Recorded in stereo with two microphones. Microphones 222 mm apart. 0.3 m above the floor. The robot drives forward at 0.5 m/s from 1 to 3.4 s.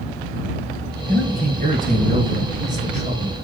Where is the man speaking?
40° right (ahead or behind), 2 m; by 3.4 s 30° right (ahead or behind), 3 m.